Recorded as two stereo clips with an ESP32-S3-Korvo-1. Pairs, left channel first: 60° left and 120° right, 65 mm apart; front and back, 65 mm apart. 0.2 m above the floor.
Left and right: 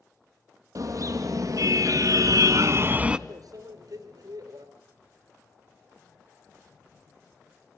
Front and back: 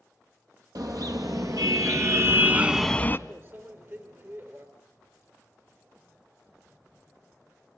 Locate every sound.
0.8 s a car horn: 155° right, 3.5 m; by 3.2 s 45° right, 0.9 m
3.3 s a microwave: 130° right, 3 m